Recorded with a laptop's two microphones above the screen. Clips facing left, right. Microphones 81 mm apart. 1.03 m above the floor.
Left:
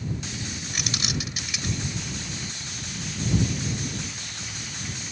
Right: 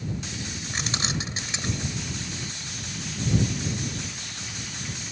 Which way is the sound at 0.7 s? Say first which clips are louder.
Right 2 dB; 30° right (ahead or behind).